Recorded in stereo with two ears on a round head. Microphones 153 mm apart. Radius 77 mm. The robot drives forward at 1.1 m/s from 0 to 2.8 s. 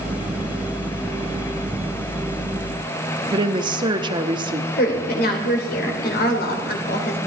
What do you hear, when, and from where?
3.3 s a woman speaking: 25° right (ahead or behind), 1.0 m
4.8 s a woman speaking: 60° left (ahead or behind), 3 m